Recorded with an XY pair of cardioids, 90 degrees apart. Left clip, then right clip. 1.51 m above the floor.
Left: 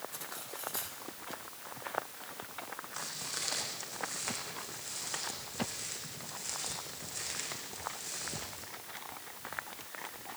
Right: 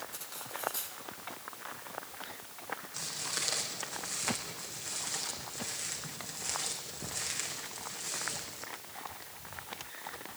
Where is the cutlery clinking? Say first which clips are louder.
Right 1 dB; straight ahead, 5 m.